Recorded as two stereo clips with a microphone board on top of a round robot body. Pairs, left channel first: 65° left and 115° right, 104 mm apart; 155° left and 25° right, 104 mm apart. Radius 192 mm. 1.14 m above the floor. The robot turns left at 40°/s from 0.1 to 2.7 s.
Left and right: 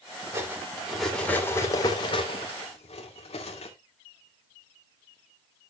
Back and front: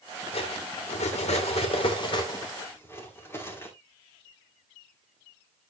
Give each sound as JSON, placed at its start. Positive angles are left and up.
{"t": 0.3, "sound": "cutlery clinking", "azimuth_deg": -175, "distance_m": 2.5}